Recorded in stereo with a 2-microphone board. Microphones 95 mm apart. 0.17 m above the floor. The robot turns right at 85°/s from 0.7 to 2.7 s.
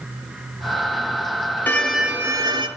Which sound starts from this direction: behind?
A violin, at 1.7 s.